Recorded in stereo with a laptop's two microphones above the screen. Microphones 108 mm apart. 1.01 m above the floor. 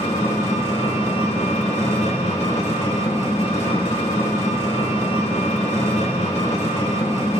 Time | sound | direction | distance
0.0 | an engine running | 75° left (ahead or behind) | 1.6 m